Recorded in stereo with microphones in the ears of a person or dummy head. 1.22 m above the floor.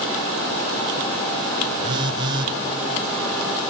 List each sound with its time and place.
1.8 s a phone buzzing: 30° right (ahead or behind), 0.8 m